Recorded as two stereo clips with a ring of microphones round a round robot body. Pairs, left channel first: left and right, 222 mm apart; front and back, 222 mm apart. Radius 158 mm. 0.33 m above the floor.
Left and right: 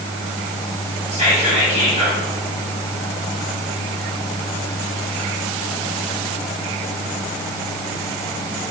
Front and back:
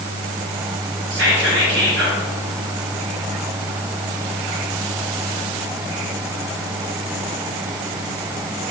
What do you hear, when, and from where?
1.1 s whispering: 155° right, 2.5 m